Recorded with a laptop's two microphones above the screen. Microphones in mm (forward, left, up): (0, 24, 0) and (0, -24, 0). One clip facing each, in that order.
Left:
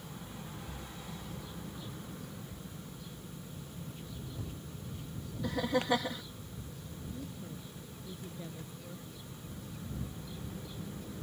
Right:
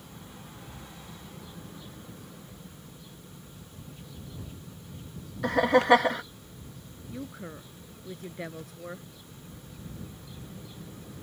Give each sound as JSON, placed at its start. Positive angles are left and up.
{"t": 5.4, "sound": "laughter", "side_deg": -70}
{"t": 7.1, "sound": "a woman speaking", "side_deg": -75}